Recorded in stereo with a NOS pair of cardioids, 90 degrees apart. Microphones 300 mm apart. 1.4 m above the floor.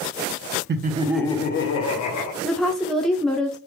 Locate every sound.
0.7 s laughter: 35° right, 0.8 m; by 2.3 s 70° left, 1.2 m
2.4 s a woman speaking: straight ahead, 0.6 m